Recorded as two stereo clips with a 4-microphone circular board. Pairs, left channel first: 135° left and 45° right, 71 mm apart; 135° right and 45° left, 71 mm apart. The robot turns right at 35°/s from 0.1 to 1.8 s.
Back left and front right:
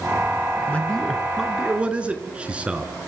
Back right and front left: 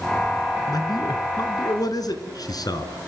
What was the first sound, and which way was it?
A man speaking, 155° right.